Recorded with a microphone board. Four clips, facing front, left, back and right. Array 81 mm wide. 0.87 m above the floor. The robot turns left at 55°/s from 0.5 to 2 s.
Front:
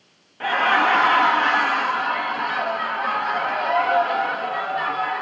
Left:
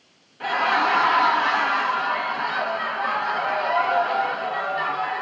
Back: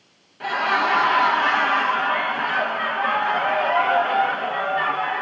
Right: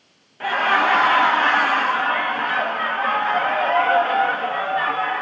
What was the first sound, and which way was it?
Laughter, 40° right.